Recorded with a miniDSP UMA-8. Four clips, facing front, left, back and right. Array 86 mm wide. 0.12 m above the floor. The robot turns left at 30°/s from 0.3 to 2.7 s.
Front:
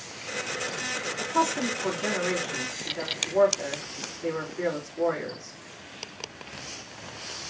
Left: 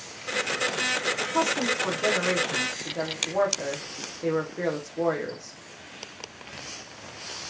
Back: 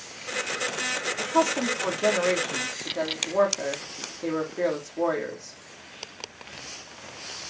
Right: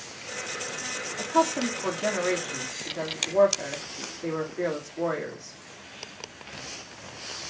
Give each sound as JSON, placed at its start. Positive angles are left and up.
{"t": 1.2, "sound": "a woman speaking", "azimuth_deg": -165, "distance_m": 4.0}